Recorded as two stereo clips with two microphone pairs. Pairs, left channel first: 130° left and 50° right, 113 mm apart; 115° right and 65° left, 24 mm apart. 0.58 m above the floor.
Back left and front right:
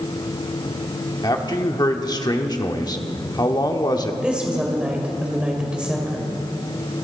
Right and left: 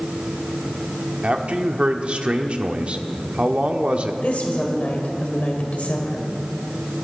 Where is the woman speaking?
135° right, 2.0 m.